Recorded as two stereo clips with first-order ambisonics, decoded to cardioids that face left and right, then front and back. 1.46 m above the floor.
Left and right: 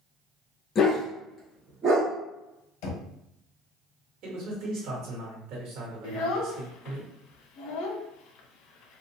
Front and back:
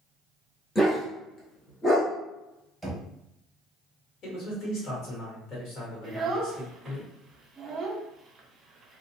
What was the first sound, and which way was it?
A dog barking, 75° left.